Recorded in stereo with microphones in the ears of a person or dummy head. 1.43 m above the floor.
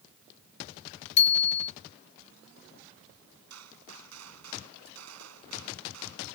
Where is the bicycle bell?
30° left (ahead or behind).